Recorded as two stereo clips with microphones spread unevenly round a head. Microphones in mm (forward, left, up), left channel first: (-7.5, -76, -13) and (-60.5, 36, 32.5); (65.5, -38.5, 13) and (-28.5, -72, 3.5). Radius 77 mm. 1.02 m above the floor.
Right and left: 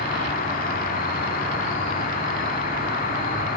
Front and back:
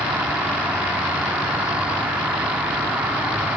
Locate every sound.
0.0 s an insect: 80° right, 0.9 m